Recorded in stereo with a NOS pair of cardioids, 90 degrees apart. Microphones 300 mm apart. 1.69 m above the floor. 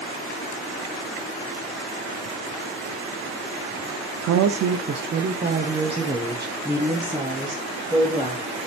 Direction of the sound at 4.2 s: 65° right.